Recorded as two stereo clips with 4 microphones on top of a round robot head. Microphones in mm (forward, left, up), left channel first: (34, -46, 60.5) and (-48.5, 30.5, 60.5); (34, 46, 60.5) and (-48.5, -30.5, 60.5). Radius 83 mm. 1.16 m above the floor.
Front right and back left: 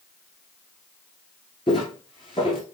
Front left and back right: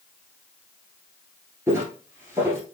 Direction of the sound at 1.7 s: 70° right.